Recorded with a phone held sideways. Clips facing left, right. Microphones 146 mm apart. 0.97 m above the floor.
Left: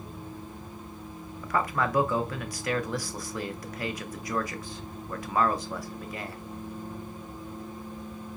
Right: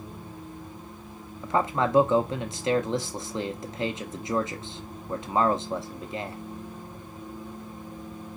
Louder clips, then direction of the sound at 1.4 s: Right 3 dB; 25° right (ahead or behind).